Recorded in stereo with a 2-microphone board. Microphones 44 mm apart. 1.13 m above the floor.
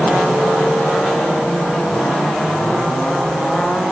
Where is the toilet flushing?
No toilet flushing in this recording.